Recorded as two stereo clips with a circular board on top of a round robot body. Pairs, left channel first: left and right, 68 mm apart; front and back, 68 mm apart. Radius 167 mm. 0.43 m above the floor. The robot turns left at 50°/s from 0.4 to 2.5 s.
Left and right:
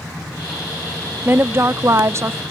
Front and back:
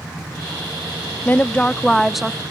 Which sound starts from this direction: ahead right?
A woman speaking, at 1.2 s.